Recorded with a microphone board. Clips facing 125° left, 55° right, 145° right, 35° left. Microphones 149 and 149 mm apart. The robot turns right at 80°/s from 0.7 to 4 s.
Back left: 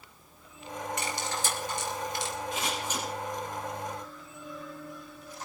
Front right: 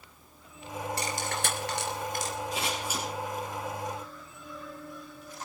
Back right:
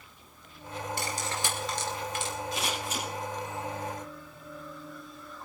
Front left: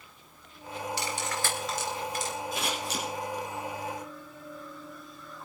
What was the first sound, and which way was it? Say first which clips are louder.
Cutlery clinking: front right 1 dB, even; 110° right.